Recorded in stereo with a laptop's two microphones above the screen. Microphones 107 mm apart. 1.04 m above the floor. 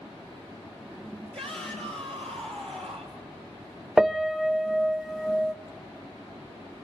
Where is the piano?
Centre (ahead or behind), 0.5 m.